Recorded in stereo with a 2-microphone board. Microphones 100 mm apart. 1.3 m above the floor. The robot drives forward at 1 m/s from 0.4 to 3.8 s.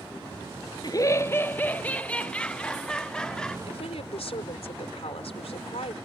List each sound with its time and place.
0.8 s laughter: 45° left (ahead or behind); by 3.6 s 5° left (ahead or behind)
3.7 s a woman speaking: 85° left